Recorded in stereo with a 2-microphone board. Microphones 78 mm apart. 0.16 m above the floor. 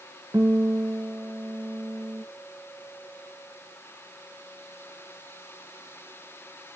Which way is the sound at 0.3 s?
45° right (ahead or behind).